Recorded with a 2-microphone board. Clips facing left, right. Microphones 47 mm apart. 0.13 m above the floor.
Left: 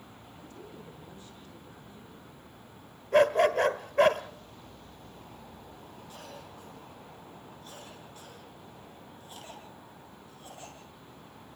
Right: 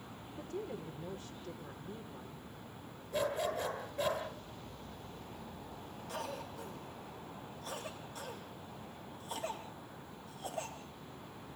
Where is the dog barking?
60° left (ahead or behind), 1.3 m.